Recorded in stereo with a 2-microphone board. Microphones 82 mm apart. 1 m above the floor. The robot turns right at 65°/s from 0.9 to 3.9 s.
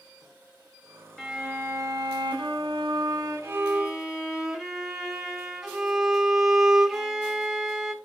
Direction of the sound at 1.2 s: Straight behind.